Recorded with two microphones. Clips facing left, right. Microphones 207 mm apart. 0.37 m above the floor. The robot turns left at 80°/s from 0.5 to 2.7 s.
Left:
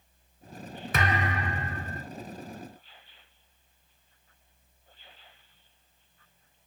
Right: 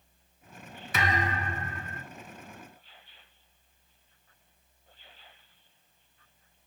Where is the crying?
No crying in this recording.